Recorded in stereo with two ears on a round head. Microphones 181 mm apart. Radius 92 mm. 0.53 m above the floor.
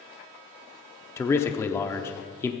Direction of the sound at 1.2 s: 15° left (ahead or behind).